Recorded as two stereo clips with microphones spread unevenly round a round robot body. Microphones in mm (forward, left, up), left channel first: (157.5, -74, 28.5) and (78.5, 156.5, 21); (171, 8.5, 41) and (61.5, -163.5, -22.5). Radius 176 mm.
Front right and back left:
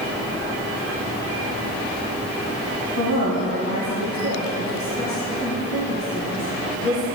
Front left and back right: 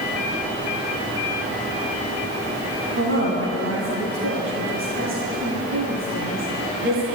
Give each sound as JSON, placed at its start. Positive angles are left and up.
{"t": 3.0, "sound": "a woman speaking", "azimuth_deg": -120, "distance_m": 2.0}